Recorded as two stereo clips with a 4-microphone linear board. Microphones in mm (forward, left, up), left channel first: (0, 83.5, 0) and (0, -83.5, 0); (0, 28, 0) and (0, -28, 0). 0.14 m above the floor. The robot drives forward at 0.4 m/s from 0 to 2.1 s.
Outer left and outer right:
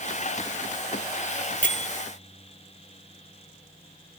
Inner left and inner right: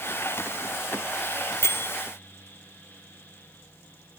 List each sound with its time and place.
1.6 s a bell: 50° left (ahead or behind), 0.7 m; by 1.9 s 45° left (ahead or behind), 0.8 m